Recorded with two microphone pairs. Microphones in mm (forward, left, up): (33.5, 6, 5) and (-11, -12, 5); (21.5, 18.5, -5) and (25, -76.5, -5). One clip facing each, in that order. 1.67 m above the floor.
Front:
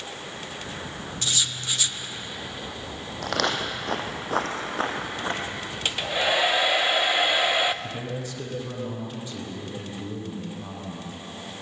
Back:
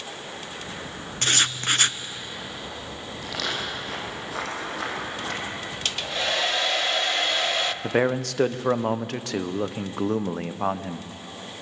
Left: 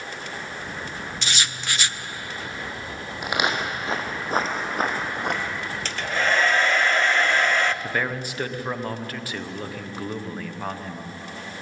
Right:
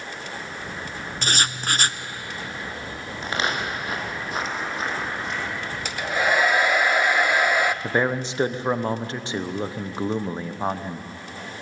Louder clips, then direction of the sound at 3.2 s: Front 4 dB, left 1 dB; 15° left.